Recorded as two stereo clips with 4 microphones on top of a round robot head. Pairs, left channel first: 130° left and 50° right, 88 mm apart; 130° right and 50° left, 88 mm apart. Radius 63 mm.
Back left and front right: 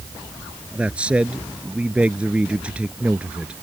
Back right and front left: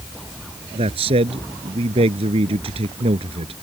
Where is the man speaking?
30° left.